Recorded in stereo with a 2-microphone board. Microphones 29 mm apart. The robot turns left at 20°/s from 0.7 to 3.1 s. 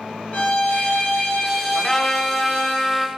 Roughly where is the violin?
Ahead left.